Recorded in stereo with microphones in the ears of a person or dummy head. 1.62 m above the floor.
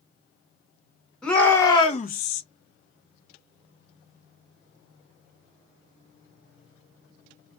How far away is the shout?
About 1.0 m.